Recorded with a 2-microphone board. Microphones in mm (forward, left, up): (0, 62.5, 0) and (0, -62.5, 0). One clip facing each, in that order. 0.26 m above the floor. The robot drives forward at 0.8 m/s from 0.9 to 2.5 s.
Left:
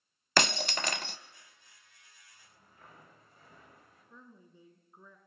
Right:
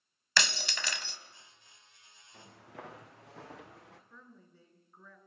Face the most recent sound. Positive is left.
turn(degrees=15)  # may be behind; listen again after turning